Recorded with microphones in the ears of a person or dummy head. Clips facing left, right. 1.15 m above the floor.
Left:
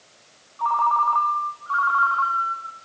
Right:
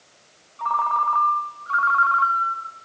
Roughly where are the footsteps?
I don't hear footsteps.